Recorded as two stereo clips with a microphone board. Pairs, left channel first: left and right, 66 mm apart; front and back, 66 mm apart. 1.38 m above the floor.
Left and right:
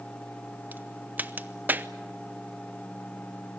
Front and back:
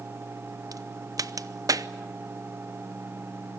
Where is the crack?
155° right, 0.8 m.